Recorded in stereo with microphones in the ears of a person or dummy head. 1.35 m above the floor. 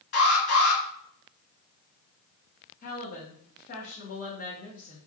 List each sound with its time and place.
0.1 s an alarm: 60° left (ahead or behind), 1.5 m
2.8 s a woman speaking: 50° left (ahead or behind), 0.9 m